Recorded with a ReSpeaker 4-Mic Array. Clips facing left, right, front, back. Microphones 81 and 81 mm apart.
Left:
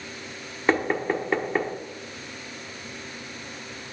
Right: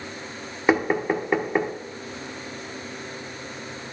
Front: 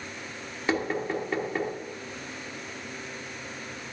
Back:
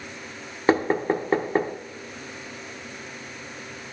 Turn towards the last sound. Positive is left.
turn(degrees=-165)